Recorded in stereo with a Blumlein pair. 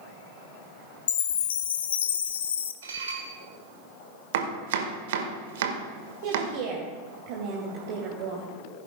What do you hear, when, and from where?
1.1 s a chime: 65° left, 0.7 m
2.8 s dishes clattering: 65° right, 2.5 m
4.3 s chopping: 55° right, 1.6 m
6.2 s a woman speaking: 45° right, 2.5 m